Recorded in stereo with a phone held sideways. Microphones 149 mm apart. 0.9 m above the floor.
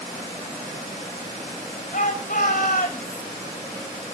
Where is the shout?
65° left (ahead or behind), 5 m.